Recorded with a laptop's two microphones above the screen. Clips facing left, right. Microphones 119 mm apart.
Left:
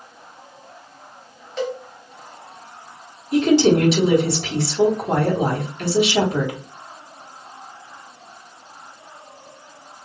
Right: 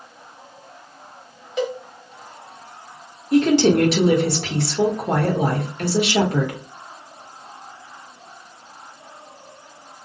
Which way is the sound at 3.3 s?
55° right (ahead or behind).